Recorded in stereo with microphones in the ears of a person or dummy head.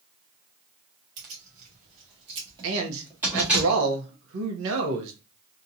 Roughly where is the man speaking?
Right.